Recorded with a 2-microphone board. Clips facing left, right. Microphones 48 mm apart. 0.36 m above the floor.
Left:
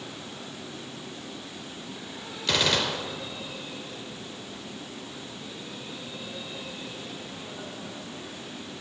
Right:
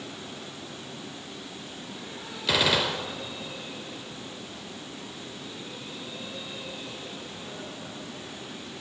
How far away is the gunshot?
About 1.2 m.